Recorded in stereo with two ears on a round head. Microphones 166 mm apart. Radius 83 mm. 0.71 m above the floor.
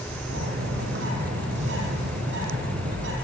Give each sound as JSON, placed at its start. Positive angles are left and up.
{"t": 0.3, "sound": "a bird", "side_deg": -65, "distance_m": 7.5}